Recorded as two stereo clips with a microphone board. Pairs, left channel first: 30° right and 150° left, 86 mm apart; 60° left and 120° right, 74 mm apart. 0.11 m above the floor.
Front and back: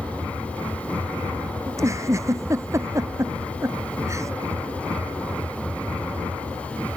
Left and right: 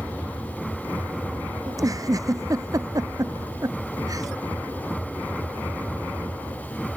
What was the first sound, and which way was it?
A giggle, 155° right.